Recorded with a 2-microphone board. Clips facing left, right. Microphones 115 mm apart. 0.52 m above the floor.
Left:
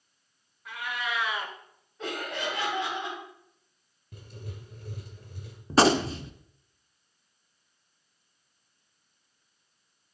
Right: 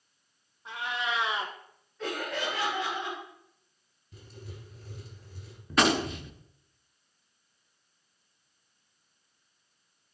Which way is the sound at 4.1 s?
55° left (ahead or behind).